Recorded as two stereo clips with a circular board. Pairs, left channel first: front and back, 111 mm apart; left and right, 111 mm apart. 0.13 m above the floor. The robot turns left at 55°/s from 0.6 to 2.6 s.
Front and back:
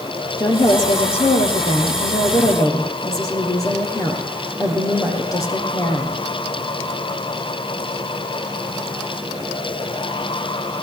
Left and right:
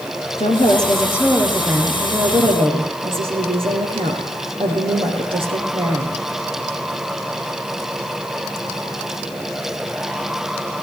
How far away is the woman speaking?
About 5 m.